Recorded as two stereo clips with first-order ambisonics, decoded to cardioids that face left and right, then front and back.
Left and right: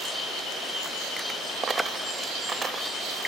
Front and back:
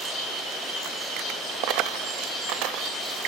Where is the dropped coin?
160° right, 1.1 m.